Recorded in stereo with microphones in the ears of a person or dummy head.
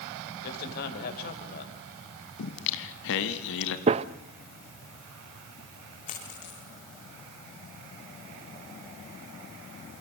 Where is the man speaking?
55° left (ahead or behind), 5.5 m.